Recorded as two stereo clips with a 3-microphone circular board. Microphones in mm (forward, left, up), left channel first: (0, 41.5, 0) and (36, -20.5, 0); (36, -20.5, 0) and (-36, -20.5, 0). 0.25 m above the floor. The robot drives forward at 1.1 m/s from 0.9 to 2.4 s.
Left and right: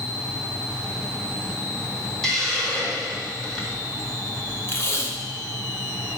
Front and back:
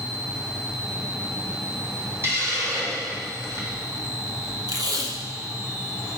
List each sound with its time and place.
2.2 s a hiss: 160° right, 1.7 m; by 3.8 s 165° right, 1.9 m
4.7 s tape being pulled: 170° left, 1.2 m